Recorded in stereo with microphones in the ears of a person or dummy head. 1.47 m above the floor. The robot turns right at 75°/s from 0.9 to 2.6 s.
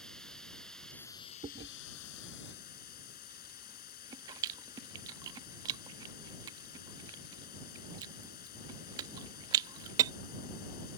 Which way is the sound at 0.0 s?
5° left.